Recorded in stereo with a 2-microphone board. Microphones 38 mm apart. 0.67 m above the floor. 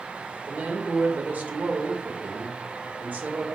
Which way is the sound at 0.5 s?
50° right (ahead or behind).